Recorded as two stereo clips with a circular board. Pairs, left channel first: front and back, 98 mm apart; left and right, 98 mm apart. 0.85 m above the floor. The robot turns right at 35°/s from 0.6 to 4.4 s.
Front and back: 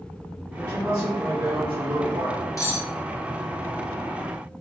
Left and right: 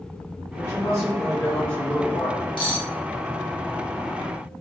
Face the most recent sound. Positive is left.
turn(degrees=120)